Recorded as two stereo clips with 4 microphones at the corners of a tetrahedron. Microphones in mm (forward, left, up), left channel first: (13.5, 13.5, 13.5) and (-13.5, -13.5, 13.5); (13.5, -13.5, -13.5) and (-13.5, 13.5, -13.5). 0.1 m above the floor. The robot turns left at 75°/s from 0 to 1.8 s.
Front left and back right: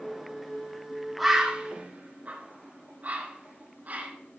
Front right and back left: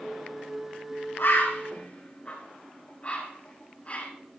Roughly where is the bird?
Ahead right.